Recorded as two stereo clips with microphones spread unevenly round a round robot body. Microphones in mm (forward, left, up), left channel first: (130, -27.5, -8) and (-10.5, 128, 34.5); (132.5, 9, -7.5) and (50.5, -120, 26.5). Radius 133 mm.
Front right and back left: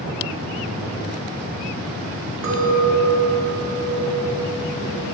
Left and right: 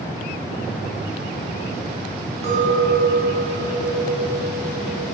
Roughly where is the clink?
Behind.